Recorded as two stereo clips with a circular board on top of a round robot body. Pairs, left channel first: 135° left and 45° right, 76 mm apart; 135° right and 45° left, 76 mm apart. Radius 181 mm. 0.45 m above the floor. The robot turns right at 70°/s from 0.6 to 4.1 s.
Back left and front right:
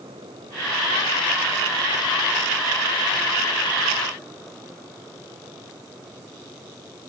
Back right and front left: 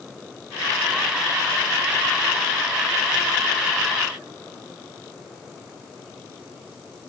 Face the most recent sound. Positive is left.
No sound to turn to.